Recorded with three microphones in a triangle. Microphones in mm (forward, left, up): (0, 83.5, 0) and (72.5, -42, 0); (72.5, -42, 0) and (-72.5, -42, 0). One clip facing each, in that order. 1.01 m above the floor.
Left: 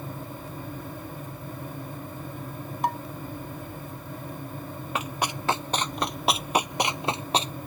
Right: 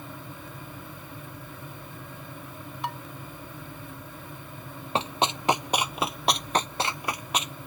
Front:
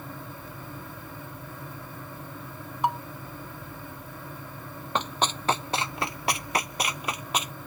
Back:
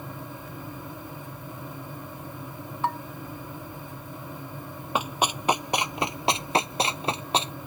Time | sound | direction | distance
2.8 | dishes clattering | 75° left | ?
5.0 | running footsteps | 100° right | ?